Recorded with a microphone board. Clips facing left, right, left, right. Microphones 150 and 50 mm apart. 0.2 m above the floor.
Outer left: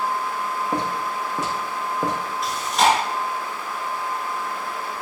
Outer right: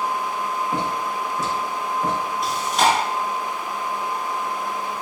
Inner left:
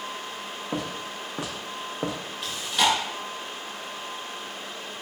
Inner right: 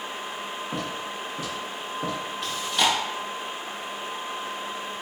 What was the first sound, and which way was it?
Footsteps, 35° left (ahead or behind).